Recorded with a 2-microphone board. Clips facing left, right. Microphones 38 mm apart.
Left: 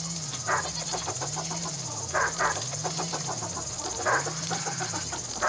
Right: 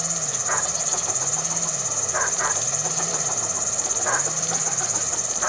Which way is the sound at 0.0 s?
80° right.